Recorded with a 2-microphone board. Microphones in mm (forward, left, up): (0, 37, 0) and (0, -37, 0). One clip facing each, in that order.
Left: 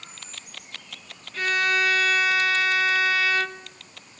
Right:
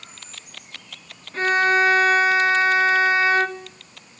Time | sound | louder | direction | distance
1.3 | a violin | right 5 dB | 30° right (ahead or behind) | 0.9 m